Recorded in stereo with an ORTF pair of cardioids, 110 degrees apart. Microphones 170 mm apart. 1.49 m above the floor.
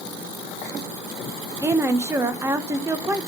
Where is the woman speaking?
15° right, 1.3 m.